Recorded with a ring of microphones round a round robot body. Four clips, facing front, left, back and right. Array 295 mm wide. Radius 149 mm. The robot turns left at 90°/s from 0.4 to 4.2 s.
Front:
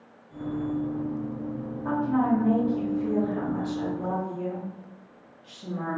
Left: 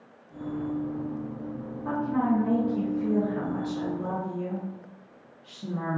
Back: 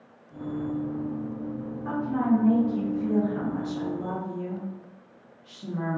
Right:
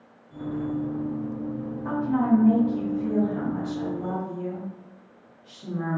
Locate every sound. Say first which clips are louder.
1.9 s a woman speaking: right 3 dB, front 1 dB; 40° right, 1.0 m; by 6.0 s 105° left, 1.0 m